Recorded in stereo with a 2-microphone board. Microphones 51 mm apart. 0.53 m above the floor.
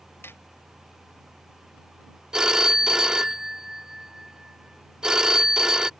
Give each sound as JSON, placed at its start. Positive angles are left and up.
{"t": 0.2, "sound": "hammering", "side_deg": 50}
{"t": 2.3, "sound": "a phone ringing", "side_deg": -15}